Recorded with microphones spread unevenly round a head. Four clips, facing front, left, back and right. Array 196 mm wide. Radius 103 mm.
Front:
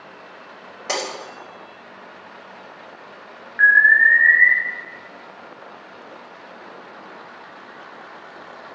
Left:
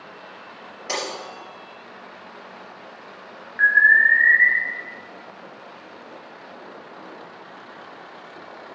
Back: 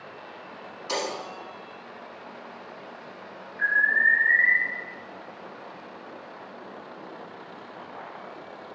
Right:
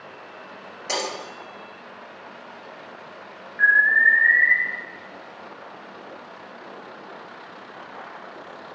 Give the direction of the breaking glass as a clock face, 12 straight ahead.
12 o'clock.